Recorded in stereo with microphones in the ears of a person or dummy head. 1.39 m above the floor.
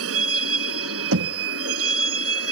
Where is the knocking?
80° right.